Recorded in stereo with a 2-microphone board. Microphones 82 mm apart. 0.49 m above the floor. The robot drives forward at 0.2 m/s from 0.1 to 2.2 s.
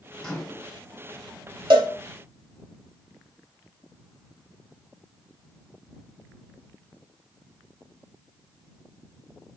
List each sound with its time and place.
0.2 s a microwave: 5° left (ahead or behind), 0.8 m
1.7 s a cowbell: 75° right (ahead or behind), 0.7 m; by 1.9 s 70° right (ahead or behind), 0.7 m